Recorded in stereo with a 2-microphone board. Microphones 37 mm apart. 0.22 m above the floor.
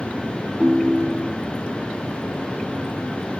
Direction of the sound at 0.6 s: 15° right (ahead or behind).